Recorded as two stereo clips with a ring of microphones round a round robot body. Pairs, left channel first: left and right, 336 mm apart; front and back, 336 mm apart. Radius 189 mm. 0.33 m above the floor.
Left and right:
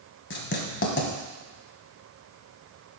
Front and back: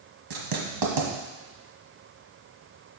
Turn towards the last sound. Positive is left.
turn(degrees=150)